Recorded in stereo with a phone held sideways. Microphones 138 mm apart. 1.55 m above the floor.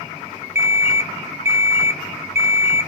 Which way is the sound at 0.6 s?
15° right (ahead or behind).